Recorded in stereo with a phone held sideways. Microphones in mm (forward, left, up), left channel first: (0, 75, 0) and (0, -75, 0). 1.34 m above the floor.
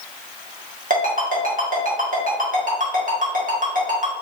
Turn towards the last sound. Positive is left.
turn(degrees=-60)  # may be behind; listen again after turning